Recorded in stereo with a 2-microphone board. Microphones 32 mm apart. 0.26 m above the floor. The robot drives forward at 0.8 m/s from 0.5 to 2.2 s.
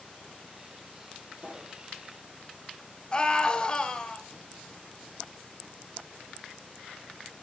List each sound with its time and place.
1.4 s a pop: 40° right (ahead or behind), 2.5 m; by 1.8 s 35° right (ahead or behind), 3 m
3.1 s a scream: 30° left (ahead or behind), 1.2 m